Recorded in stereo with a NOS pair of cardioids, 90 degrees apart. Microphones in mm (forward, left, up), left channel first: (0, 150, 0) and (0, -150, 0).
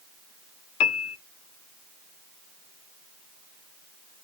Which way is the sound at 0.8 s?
60° left.